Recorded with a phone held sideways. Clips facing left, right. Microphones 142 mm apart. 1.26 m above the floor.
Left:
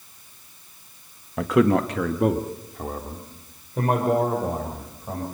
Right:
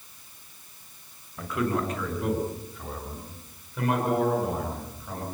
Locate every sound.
1.4 s a man speaking: 85° left, 1.4 m; by 5.2 s 40° left (ahead or behind), 6.5 m